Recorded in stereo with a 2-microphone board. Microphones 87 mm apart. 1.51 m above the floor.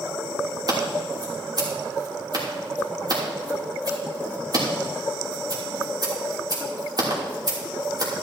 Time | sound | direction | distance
0.7 | scissors | 50° right (ahead or behind) | 3 m